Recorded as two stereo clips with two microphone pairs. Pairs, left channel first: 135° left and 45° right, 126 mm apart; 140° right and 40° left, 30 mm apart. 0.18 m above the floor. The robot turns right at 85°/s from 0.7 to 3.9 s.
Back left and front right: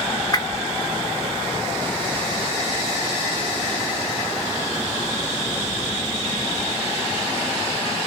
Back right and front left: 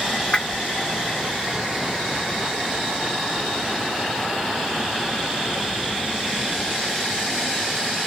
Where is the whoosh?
Straight behind, 0.5 m.